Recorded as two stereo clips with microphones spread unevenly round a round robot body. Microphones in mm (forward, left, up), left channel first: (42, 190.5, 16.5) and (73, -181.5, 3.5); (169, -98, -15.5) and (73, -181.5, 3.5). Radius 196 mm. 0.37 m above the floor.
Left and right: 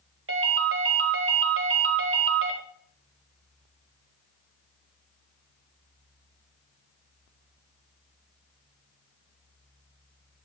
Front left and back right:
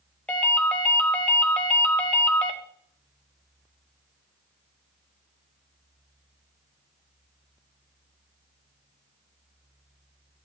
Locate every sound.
0.3 s a ringtone: 35° right, 1.5 m